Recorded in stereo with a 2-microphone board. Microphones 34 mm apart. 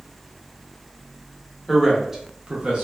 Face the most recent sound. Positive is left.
turn(degrees=-35)  # may be behind; listen again after turning